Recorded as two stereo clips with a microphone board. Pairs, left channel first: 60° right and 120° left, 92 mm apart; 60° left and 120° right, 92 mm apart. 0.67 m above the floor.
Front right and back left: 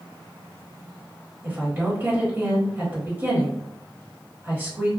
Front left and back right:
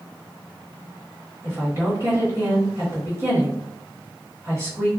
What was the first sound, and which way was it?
A woman speaking, 175° right.